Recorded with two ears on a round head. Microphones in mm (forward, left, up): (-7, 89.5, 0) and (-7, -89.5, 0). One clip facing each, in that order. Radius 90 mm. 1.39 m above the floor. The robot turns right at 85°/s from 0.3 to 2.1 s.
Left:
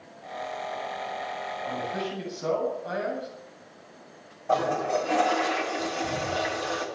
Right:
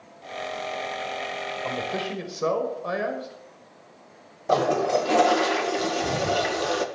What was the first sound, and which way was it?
A man speaking, 115° right.